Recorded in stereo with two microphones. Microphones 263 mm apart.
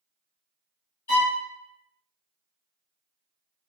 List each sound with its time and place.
1.1 s a violin: 75° left (ahead or behind), 1.7 m